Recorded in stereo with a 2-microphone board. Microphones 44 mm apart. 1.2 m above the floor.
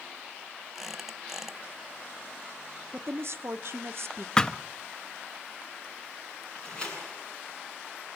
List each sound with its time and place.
0.8 s a squeak: 5° right (ahead or behind), 1.2 m
2.9 s a woman speaking: 65° right (ahead or behind), 1.1 m
4.4 s a thud: 15° left (ahead or behind), 0.5 m
6.5 s a door slam: 20° left (ahead or behind), 9 m